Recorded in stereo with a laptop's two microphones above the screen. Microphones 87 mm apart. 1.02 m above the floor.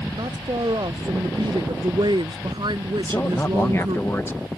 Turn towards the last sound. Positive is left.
turn(degrees=30)  # may be behind; listen again after turning